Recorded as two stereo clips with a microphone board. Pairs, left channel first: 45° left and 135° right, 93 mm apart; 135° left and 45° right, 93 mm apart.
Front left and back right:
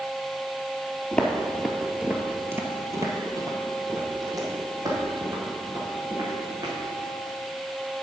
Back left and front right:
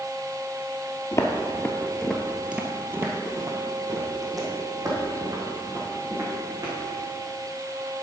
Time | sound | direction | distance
1.1 | footsteps | 110° left | 0.9 m